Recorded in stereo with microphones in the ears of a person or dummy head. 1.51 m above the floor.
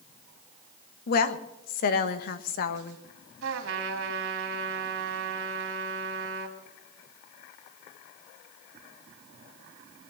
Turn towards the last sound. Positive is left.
turn(degrees=-75)  # may be behind; listen again after turning